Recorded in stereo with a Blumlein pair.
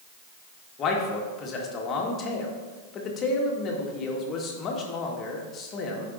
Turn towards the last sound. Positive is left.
turn(degrees=30)